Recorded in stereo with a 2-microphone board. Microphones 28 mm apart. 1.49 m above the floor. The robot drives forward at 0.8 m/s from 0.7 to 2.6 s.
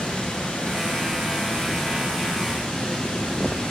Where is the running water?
45° left (ahead or behind), 7 m; by 3.7 s 35° left (ahead or behind), 8 m.